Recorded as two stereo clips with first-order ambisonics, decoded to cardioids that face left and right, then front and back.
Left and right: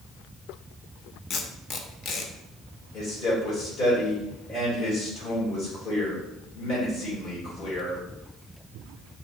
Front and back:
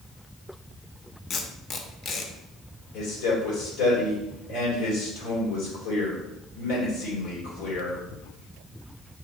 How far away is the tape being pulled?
About 0.6 m.